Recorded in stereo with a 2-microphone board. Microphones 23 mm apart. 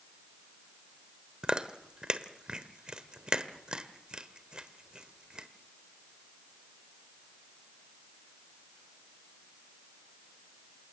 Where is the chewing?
45° right (ahead or behind), 1.2 m.